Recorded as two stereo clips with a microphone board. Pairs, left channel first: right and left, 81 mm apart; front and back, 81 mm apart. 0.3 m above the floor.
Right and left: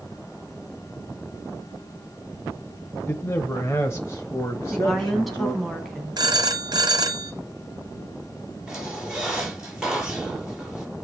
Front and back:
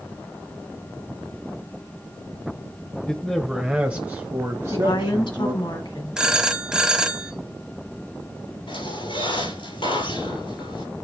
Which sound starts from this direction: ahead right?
A man speaking, at 3.1 s.